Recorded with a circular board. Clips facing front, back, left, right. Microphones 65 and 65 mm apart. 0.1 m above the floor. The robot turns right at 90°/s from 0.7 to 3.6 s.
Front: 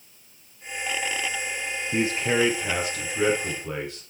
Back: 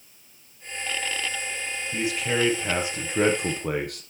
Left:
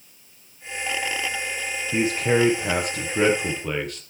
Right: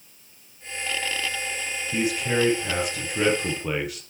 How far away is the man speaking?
About 2.5 m.